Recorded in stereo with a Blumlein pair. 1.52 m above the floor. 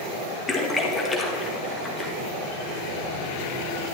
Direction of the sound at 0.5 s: 10° left.